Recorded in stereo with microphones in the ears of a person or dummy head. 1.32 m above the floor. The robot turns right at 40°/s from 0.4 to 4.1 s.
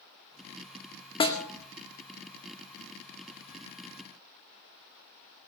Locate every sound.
1.2 s a snare drum: 25° left (ahead or behind), 1.9 m; by 1.4 s 15° left (ahead or behind), 1.9 m